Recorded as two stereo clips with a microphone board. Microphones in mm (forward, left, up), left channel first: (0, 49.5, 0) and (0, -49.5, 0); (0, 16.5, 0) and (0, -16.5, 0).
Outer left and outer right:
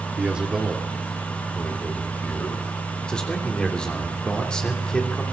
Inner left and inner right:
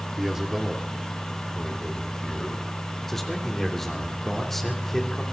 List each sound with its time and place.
0.2 s a man speaking: 15° right (ahead or behind), 2 m; by 2.6 s 20° left (ahead or behind), 4 m
3.1 s a man speaking: 10° left (ahead or behind), 3 m